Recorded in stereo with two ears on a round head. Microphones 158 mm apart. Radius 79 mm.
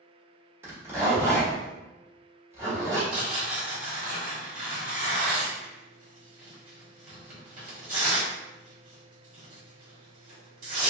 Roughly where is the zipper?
Centre.